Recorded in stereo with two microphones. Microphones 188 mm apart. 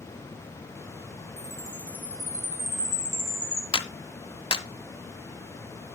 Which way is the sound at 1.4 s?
15° left (ahead or behind).